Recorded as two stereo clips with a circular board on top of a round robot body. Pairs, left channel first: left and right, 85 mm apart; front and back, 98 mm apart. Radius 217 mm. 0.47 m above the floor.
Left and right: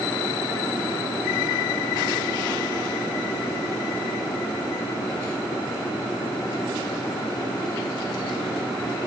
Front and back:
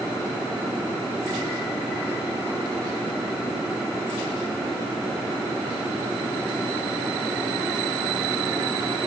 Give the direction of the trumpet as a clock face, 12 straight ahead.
I don't hear a trumpet.